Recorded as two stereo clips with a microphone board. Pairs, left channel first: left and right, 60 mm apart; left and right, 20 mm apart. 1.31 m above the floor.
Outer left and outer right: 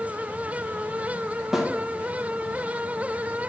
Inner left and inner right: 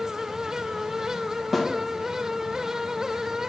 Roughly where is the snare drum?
Centre.